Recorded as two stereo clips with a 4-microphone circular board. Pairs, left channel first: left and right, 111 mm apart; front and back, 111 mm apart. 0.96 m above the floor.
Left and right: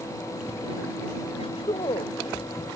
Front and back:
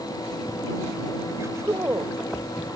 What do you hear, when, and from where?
1.3 s a woman speaking: 115° left